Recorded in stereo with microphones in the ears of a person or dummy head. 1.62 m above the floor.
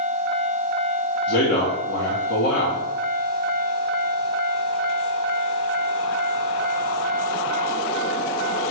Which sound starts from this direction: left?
A man speaking, at 1.3 s.